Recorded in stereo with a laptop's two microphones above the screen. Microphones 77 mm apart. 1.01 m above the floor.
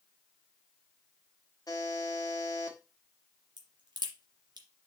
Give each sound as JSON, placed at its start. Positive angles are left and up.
{"t": 1.7, "sound": "a buzzer", "side_deg": 50, "distance_m": 1.6}
{"t": 3.6, "sound": "a crack", "side_deg": -65, "distance_m": 2.5}